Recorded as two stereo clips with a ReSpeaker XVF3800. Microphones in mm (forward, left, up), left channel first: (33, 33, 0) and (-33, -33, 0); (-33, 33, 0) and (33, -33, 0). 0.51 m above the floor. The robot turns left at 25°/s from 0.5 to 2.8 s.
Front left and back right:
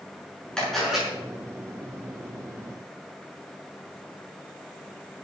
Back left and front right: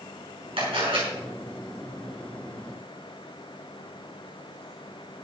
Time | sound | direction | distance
0.6 | a camera shutter | 40° right | 7.5 m